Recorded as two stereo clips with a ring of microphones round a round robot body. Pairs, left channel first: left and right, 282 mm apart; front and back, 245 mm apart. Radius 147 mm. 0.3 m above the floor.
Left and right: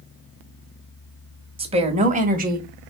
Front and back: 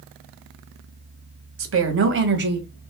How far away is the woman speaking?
About 2.0 m.